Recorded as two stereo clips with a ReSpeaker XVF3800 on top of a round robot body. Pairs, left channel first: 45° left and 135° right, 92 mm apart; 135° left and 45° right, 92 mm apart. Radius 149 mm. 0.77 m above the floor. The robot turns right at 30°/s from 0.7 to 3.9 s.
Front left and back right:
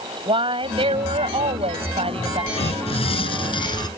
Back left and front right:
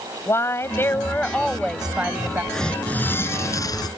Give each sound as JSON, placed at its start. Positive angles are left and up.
{"t": 0.3, "sound": "a woman speaking", "azimuth_deg": -165}
{"t": 2.5, "sound": "tearing paper", "azimuth_deg": 50}